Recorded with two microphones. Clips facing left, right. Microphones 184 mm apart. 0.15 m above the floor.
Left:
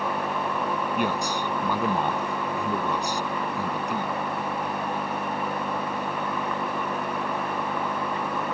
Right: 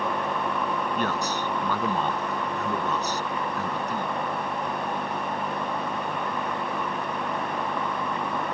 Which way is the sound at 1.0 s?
10° left (ahead or behind).